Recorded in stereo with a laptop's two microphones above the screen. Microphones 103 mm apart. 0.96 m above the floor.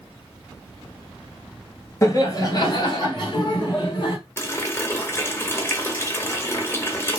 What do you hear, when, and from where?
2.0 s laughter: 30° left (ahead or behind), 0.9 m; by 4.2 s 50° left (ahead or behind), 1.6 m
4.4 s a running tap: 25° left (ahead or behind), 0.9 m